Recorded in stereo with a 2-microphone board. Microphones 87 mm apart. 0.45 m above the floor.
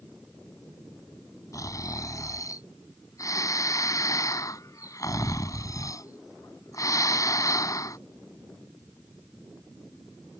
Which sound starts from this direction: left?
Snoring, at 1.5 s.